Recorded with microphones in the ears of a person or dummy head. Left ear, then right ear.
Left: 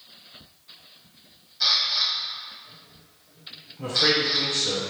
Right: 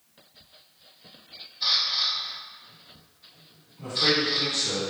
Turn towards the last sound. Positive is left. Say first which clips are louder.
# left 2 dB
turn(degrees=30)  # may be behind; listen again after turning